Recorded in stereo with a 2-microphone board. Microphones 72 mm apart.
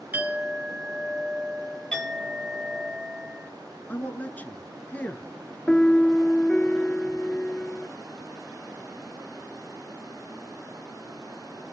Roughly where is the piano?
Centre.